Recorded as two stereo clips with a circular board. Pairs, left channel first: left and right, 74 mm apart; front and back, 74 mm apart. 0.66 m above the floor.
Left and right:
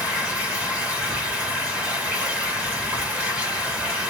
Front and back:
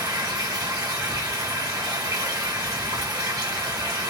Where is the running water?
160° right, 1.3 m.